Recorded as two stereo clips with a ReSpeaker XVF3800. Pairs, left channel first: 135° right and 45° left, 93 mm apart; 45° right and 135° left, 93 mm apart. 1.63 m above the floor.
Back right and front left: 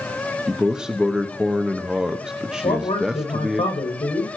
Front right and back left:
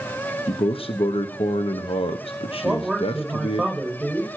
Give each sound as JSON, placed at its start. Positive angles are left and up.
{"t": 0.5, "sound": "a man speaking", "azimuth_deg": -40, "distance_m": 1.0}
{"t": 2.6, "sound": "a man speaking", "azimuth_deg": -140, "distance_m": 8.0}